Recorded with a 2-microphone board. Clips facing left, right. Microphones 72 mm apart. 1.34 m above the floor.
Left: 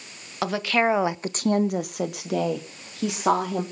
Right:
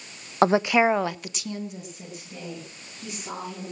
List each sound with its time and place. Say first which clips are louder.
0.4 s a woman speaking: right 4 dB; 35° right (ahead or behind), 0.9 m; by 3.6 s 90° left, 3 m